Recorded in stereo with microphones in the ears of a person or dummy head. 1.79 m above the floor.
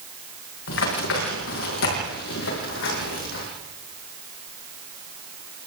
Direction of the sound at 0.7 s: 75° left (ahead or behind).